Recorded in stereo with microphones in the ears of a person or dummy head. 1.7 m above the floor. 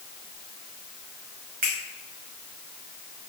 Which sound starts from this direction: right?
A finger snap, at 1.6 s.